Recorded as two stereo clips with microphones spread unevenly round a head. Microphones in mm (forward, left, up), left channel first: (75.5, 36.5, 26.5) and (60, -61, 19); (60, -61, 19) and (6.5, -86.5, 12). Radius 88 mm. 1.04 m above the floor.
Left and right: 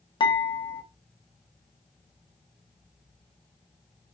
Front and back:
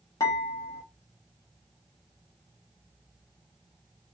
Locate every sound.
0.2 s dishes clattering: 45° left, 0.7 m